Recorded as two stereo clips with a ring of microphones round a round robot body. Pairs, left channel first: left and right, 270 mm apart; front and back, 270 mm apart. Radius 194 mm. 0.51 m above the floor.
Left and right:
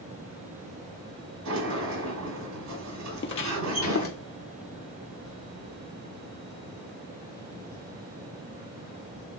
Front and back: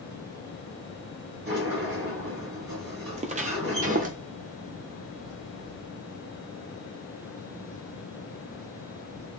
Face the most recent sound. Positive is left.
turn(degrees=120)